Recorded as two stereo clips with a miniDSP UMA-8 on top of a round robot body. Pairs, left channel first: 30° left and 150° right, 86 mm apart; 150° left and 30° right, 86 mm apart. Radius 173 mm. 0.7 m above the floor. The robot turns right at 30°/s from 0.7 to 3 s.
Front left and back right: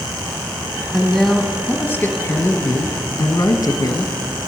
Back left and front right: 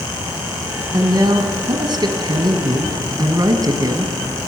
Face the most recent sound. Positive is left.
turn(degrees=-10)